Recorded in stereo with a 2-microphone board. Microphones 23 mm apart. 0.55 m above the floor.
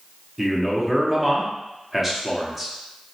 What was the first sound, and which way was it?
A man speaking, 10° right (ahead or behind).